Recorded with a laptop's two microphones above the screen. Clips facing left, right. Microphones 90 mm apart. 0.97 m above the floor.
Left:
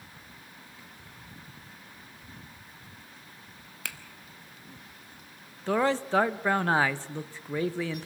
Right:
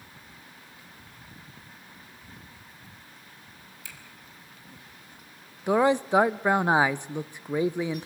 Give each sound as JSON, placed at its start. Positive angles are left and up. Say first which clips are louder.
{"t": 3.9, "sound": "a finger snap", "louder": "left 8 dB", "side_deg": 75, "distance_m": 1.0}
{"t": 5.7, "sound": "a man speaking", "louder": "right 4 dB", "side_deg": -15, "distance_m": 0.6}